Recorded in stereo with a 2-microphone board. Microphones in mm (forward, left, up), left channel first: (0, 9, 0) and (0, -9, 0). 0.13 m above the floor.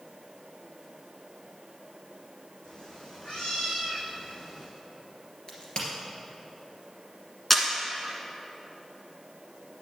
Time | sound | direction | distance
2.6 | a cat meowing | 45° left (ahead or behind) | 3.5 m
5.5 | a crack | 50° left (ahead or behind) | 2.5 m
7.5 | a camera shutter | 10° left (ahead or behind) | 1.5 m